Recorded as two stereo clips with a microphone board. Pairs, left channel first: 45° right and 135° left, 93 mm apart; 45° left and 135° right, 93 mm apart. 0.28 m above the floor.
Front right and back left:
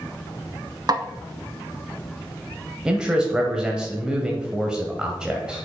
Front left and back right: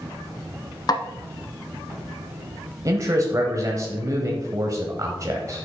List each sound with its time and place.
0.9 s a snare drum: 90° left, 0.6 m
2.9 s a man speaking: 150° right, 1.2 m